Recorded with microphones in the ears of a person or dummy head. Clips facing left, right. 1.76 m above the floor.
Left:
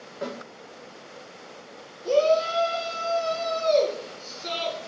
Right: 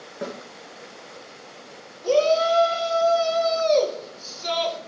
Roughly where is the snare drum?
Right.